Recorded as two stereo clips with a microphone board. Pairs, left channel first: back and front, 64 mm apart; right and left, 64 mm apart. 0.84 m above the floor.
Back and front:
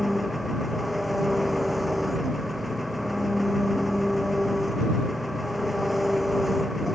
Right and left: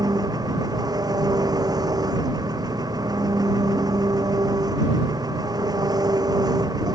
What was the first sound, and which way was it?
An engine running, 85° left.